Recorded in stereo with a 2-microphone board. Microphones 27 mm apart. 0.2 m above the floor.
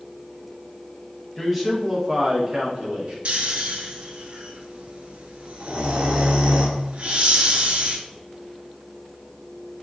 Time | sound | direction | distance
1.4 | a man speaking | 5° left (ahead or behind) | 1.0 m
3.2 | snoring | 50° right (ahead or behind) | 0.7 m